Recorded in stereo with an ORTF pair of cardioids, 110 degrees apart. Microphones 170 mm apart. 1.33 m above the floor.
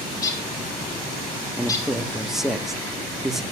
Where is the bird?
20° left, 3.5 m.